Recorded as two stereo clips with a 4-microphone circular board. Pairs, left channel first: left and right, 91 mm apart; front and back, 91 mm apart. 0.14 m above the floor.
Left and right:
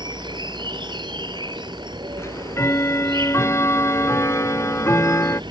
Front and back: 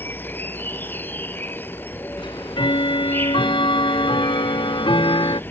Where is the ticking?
30° left.